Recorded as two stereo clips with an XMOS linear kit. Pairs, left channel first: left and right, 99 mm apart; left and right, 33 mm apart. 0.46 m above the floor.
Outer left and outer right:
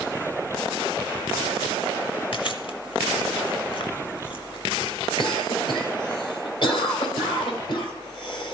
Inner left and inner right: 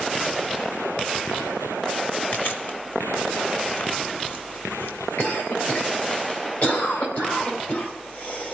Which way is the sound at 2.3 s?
65° left (ahead or behind).